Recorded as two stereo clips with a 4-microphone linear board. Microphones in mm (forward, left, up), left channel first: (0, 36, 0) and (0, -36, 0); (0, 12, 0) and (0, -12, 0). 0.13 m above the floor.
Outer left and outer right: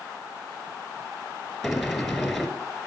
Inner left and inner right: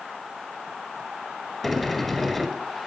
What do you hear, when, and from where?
1.6 s a sliding door: centre (ahead or behind), 1.6 m